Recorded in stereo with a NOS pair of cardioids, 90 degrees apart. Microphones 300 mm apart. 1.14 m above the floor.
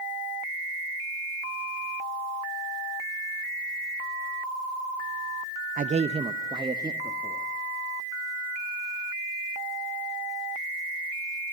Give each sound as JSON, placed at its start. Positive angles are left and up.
{"t": 5.8, "sound": "a man speaking", "azimuth_deg": -30, "distance_m": 0.5}